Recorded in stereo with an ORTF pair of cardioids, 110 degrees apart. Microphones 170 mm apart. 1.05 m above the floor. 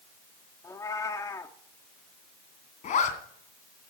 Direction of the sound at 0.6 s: 20° left.